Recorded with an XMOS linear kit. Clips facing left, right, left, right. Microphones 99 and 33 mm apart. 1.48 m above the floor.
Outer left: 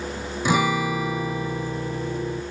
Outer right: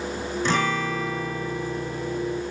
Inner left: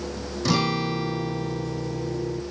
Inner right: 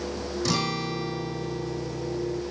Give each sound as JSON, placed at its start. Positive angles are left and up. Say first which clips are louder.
{"t": 0.5, "sound": "a guitar", "louder": "outer left 4 dB, inner left 5 dB", "side_deg": 10}